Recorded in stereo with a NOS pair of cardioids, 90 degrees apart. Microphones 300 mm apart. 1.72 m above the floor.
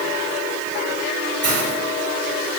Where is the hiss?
55° right, 4 m.